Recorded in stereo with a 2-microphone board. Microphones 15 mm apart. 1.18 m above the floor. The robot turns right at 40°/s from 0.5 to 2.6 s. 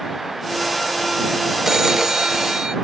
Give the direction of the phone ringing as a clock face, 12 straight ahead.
5 o'clock.